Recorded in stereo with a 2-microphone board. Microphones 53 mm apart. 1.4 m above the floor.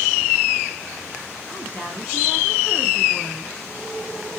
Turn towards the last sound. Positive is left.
turn(degrees=-20)  # may be behind; listen again after turning